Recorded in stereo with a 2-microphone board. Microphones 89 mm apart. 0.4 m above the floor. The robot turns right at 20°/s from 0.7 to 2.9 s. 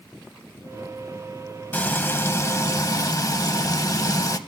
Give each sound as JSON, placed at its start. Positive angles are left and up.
{"t": 1.7, "sound": "frying", "side_deg": 20, "distance_m": 0.7}